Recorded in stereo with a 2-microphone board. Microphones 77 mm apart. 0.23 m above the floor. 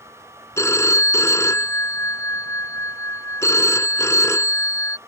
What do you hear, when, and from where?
0.6 s a phone ringing: 40° left (ahead or behind)